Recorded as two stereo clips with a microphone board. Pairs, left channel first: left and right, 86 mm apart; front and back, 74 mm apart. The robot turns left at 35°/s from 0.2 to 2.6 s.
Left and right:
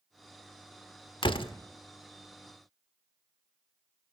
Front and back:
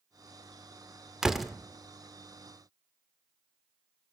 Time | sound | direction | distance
1.2 | a door slam | 100° left | 1.5 m